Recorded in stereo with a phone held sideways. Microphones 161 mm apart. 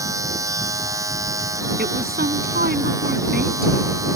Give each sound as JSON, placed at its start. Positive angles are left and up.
{"t": 0.0, "sound": "a machine running", "side_deg": -20}
{"t": 1.8, "sound": "a woman speaking", "side_deg": -75}